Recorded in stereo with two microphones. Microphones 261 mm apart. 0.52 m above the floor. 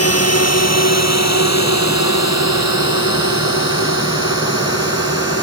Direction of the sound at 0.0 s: 65° left (ahead or behind).